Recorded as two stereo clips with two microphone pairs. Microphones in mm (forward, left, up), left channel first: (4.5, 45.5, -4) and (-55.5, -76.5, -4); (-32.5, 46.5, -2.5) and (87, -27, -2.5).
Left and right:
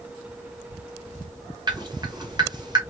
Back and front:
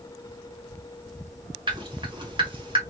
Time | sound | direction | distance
1.7 | dripping | 70° right | 1.1 m